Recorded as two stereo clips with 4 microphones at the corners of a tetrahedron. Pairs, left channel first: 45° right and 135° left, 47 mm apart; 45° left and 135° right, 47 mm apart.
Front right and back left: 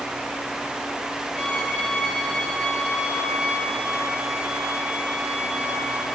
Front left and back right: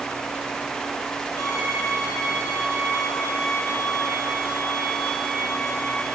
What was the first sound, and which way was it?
A violin, 90° left.